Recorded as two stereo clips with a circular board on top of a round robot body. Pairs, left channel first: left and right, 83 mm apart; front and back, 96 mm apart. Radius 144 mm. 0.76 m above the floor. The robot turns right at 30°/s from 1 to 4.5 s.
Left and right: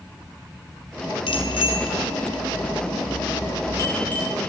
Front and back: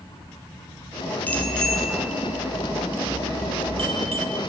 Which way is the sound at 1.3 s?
75° left.